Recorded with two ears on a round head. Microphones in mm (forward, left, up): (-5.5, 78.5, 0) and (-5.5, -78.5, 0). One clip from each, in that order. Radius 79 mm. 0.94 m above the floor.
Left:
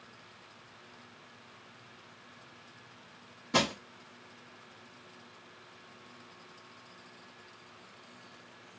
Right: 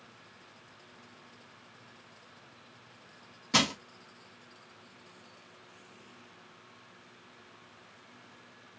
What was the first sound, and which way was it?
Crushing, 50° right (ahead or behind).